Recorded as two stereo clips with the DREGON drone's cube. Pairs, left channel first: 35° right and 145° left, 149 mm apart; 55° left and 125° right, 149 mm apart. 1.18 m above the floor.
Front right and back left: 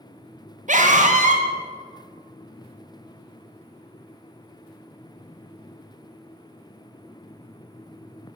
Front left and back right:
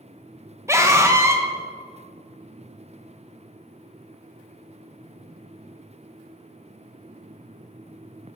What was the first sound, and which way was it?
A scream, 165° left.